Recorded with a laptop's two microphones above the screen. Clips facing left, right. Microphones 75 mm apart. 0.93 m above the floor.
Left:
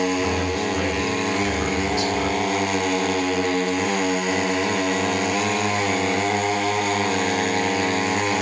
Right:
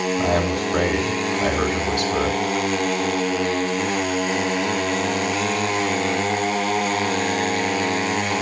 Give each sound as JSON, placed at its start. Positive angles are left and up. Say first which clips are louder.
{"t": 0.2, "sound": "a man speaking", "louder": "right 2 dB", "side_deg": -70, "distance_m": 3.0}